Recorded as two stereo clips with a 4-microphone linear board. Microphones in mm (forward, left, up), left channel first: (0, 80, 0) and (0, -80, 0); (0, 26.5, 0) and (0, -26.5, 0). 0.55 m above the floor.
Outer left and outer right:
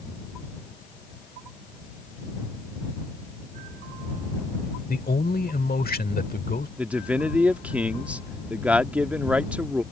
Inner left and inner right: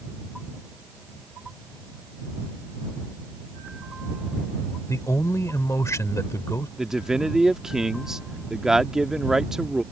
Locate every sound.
4.9 s a man speaking: 65° left (ahead or behind)
6.8 s a man speaking: 10° right (ahead or behind)